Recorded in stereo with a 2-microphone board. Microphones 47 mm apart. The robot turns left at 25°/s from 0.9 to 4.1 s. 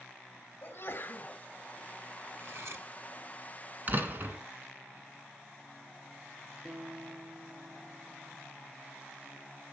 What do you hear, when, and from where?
0.6 s a sneeze: 60° left (ahead or behind), 2 m
2.4 s cutlery clinking: 65° right (ahead or behind), 1.4 m; by 2.9 s 60° right (ahead or behind), 1.4 m
3.9 s a door slam: 35° right (ahead or behind), 2 m; by 4.4 s 45° right (ahead or behind), 2 m
6.7 s a guitar: 20° right (ahead or behind), 5.5 m